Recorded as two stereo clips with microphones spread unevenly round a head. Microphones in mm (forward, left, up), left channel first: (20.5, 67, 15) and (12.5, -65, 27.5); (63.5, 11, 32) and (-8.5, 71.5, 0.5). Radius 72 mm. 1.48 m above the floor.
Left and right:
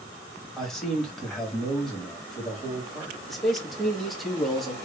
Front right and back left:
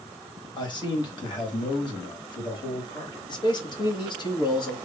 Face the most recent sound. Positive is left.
turn(degrees=-5)